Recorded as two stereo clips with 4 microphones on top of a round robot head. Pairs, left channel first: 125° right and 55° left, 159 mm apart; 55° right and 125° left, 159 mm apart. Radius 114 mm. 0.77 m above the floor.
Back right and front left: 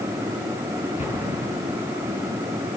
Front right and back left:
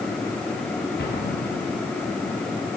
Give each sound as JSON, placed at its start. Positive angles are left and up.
{"t": 1.0, "sound": "an explosion", "azimuth_deg": -75, "distance_m": 6.0}